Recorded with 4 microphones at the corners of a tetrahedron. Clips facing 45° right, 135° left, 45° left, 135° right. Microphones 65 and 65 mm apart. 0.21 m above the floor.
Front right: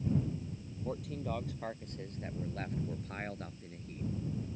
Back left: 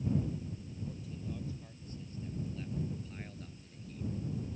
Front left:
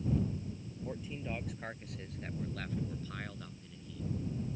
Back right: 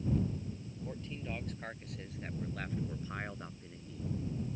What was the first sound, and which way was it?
A man speaking, 35° right.